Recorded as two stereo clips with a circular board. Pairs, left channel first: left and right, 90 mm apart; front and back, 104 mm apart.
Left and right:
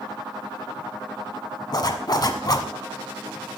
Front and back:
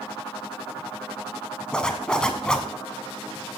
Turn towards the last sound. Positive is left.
turn(degrees=80)